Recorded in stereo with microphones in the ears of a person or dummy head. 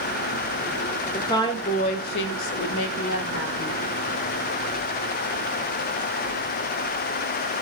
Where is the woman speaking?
15° left (ahead or behind), 0.7 m; by 3.8 s 55° left (ahead or behind), 0.9 m.